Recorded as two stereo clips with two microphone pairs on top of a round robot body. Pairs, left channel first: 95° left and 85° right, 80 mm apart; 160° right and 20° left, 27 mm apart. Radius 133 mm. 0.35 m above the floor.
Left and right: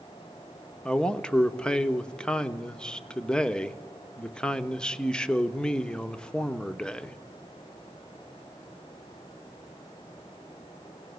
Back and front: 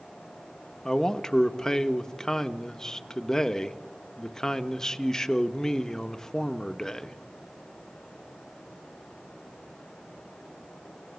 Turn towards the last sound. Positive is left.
turn(degrees=145)